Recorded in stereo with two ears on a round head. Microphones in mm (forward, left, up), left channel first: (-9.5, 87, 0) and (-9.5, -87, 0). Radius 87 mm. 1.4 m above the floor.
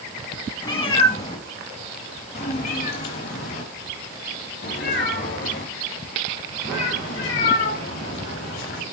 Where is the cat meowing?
25° left (ahead or behind), 1.6 m; by 8.8 s 70° left (ahead or behind), 5.5 m.